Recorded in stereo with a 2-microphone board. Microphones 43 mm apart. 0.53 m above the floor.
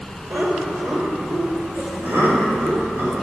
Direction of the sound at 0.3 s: 65° right (ahead or behind).